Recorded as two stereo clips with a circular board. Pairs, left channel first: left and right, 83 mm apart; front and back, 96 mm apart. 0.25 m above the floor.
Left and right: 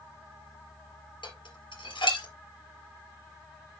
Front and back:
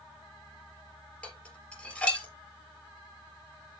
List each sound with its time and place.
1.2 s dishes clattering: 80° left, 3.5 m